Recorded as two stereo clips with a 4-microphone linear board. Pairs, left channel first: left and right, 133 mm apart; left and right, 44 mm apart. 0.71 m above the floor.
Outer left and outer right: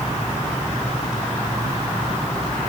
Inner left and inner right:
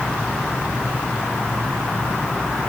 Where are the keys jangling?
I don't hear keys jangling.